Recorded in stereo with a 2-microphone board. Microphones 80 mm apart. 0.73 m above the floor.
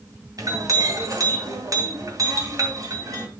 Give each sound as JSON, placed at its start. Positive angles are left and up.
{"t": 0.4, "sound": "a clink", "side_deg": -45, "distance_m": 2.5}